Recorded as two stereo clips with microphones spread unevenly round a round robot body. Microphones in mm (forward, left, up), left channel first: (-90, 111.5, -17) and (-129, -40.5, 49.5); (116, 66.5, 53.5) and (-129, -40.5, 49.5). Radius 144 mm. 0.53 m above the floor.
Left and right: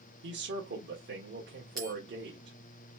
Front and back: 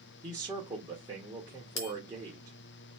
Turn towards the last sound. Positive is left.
turn(degrees=-15)